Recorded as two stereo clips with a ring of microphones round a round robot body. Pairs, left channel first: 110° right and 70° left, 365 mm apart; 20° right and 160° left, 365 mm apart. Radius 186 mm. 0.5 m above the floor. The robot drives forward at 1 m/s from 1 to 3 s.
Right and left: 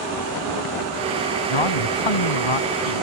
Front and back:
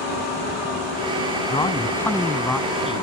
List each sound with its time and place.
1.5 s a man speaking: 100° right; by 3.0 s 115° right